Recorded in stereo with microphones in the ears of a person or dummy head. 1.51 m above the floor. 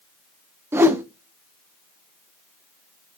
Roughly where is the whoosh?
Centre.